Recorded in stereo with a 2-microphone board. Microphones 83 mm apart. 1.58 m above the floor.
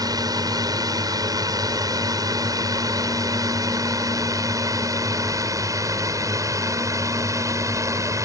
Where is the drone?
50° right (ahead or behind); by 8.3 s 40° right (ahead or behind).